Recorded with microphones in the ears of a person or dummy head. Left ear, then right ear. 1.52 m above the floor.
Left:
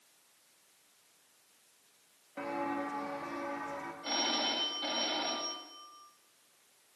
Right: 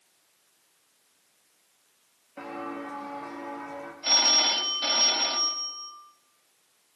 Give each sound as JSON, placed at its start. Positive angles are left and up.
{"t": 2.4, "sound": "footsteps", "side_deg": 0, "distance_m": 5.0}
{"t": 4.0, "sound": "a phone ringing", "side_deg": -75, "distance_m": 6.0}